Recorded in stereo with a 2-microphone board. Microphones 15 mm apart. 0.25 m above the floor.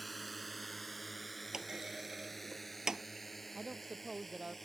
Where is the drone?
5° left (ahead or behind); by 4.7 s 15° left (ahead or behind).